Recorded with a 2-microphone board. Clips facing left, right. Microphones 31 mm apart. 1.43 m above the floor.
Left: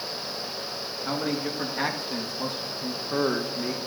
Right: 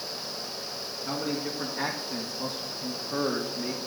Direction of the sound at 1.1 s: 75° left (ahead or behind).